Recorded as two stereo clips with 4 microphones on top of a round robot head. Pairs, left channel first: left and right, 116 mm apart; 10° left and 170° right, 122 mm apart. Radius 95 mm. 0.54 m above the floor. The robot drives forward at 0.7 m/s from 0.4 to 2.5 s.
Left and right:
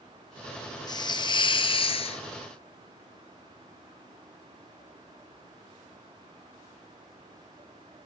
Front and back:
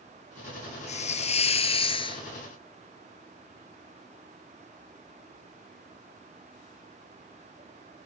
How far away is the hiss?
About 2 m.